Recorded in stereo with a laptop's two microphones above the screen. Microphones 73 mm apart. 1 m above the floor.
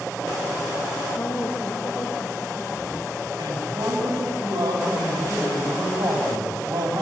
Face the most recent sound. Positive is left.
turn(degrees=-85)